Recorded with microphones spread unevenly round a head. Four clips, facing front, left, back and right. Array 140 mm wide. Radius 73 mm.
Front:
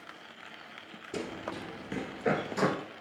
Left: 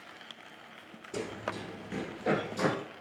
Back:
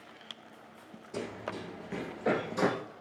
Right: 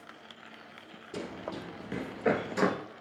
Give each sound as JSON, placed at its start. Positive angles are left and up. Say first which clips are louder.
{"t": 1.1, "sound": "running footsteps", "louder": "left 2 dB, front 1 dB", "azimuth_deg": 10, "distance_m": 2.0}